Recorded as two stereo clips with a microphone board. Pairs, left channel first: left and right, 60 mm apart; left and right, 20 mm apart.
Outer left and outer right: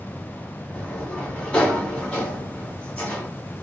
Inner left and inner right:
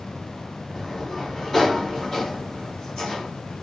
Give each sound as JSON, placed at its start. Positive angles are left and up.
{"t": 0.7, "sound": "a sliding door", "side_deg": 20, "distance_m": 1.2}